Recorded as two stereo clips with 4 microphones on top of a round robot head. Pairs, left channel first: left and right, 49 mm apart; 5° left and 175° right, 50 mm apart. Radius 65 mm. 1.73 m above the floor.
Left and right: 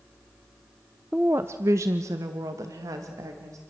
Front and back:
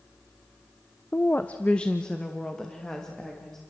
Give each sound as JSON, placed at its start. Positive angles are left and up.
{"t": 1.1, "sound": "a woman speaking", "azimuth_deg": -35, "distance_m": 0.6}